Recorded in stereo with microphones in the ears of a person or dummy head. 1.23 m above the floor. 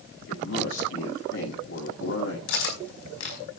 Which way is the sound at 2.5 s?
65° left (ahead or behind).